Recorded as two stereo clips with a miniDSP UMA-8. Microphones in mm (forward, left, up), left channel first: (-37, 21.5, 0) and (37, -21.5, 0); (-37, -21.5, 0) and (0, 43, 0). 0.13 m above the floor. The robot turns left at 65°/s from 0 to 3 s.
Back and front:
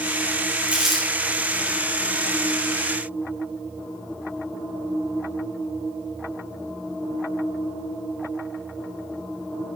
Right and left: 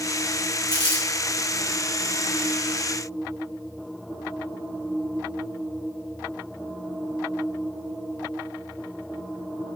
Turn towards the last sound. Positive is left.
turn(degrees=105)